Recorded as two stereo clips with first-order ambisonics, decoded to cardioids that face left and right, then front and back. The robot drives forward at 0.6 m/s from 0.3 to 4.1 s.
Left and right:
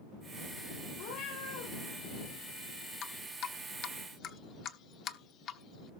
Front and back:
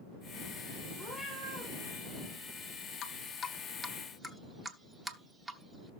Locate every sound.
1.0 s a cat meowing: 85° left, 7 m
3.0 s dripping: 45° left, 0.9 m; by 5.9 s 105° left, 0.8 m